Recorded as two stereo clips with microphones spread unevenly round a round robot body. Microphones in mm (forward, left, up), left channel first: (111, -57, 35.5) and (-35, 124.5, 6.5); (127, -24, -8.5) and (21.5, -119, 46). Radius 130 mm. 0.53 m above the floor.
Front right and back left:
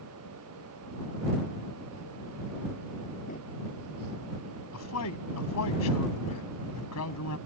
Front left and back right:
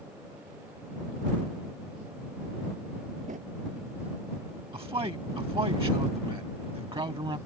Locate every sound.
3.3 s a drawer: 115° right
4.7 s a man speaking: 80° right